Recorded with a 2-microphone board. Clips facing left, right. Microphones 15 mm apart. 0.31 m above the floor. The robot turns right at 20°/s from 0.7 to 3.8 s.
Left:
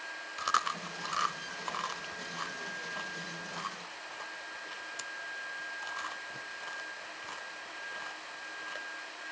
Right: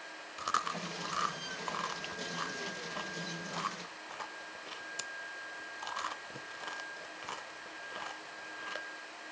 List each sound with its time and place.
0.4 s chewing: 20° left (ahead or behind), 0.6 m; by 8.9 s 10° right (ahead or behind), 0.6 m